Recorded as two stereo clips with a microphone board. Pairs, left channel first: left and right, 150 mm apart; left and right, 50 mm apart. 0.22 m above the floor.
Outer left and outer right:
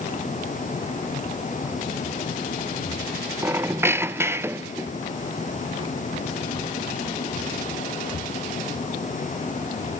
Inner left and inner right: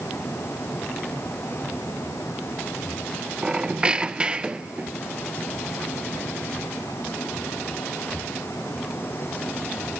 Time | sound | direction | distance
3.4 | a squeak | 15° right (ahead or behind) | 0.6 m